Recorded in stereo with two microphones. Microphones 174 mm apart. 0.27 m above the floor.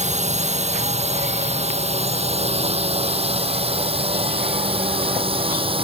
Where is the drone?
40° right (ahead or behind); by 5.8 s 30° right (ahead or behind).